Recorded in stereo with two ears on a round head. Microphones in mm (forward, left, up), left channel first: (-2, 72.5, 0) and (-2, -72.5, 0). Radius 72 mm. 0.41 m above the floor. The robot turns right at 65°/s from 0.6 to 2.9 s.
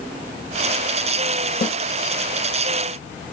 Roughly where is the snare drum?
Centre.